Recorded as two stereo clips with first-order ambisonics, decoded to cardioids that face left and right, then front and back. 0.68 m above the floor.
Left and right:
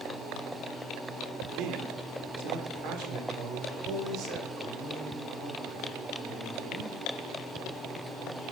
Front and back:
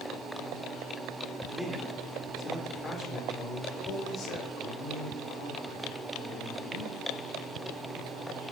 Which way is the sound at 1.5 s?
105° right.